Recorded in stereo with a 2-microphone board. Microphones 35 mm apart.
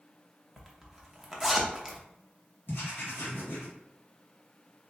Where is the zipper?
Centre (ahead or behind), 0.9 m.